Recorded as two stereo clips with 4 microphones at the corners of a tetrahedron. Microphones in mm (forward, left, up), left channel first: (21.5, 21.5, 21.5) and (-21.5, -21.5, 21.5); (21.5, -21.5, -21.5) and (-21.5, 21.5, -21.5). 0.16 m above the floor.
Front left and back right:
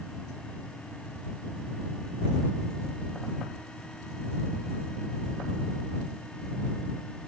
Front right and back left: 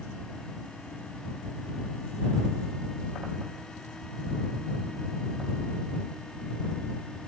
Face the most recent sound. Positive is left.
No sound to turn to.